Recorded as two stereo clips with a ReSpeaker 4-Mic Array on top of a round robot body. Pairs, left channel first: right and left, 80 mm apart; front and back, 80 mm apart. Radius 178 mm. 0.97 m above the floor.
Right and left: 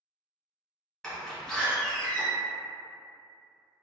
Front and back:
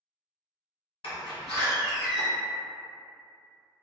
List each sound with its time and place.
1.0 s a door slam: 5° right, 1.4 m